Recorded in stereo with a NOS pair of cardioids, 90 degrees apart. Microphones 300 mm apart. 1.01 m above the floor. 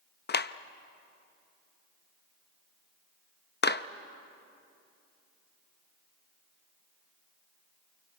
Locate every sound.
0.3 s a clap: 35° left, 0.7 m